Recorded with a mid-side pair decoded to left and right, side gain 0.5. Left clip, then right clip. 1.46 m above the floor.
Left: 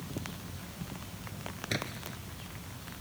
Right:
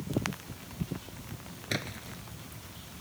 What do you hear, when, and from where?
1.7 s a splash: 10° right